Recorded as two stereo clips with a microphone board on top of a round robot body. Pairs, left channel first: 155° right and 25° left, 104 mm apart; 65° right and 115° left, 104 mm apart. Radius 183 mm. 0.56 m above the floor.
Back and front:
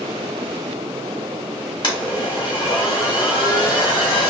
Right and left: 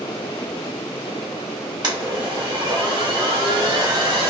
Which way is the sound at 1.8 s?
160° left.